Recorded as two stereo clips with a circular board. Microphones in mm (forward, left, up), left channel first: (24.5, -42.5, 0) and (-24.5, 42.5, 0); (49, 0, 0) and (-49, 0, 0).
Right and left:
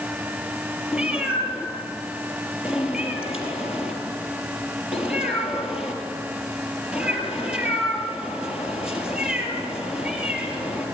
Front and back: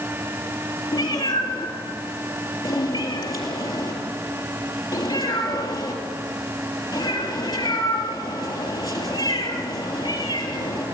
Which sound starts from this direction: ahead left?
A cat meowing, at 0.9 s.